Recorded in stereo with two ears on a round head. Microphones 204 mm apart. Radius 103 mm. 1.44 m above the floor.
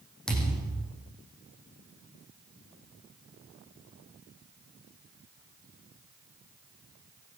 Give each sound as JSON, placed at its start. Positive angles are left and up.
{"t": 0.3, "sound": "a thud", "side_deg": 5, "distance_m": 8.0}